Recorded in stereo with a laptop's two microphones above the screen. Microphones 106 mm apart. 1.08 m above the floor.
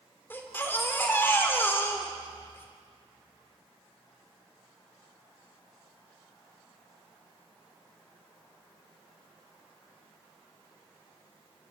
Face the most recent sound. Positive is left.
turn(degrees=20)  # may be behind; listen again after turning